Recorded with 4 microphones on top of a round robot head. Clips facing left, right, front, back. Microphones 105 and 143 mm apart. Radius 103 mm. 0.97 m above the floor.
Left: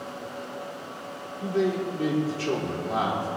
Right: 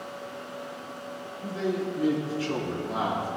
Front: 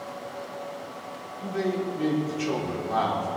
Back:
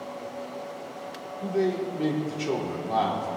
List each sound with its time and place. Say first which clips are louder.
1.4 s a man speaking: left 4 dB, back 2 dB; 120° left, 2.5 m